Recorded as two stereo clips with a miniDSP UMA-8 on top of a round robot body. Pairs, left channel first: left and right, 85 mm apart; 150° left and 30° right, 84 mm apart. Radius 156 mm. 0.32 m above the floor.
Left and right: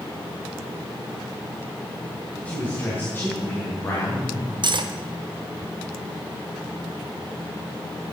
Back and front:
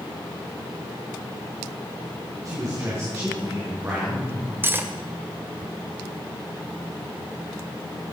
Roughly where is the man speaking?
Ahead.